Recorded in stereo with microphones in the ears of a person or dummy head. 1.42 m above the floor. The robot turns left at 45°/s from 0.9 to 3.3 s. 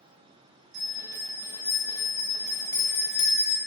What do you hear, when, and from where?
0.7 s a bell: 110° right, 1.1 m; by 3.6 s 140° left, 1.1 m